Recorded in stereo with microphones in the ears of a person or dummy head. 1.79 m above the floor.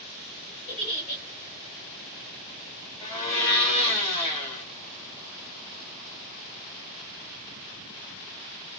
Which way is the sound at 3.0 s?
30° left (ahead or behind).